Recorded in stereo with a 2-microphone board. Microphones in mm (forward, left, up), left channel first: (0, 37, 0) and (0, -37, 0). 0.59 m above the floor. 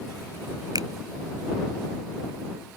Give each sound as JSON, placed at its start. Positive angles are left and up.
{"t": 0.8, "sound": "a finger snap", "side_deg": -60}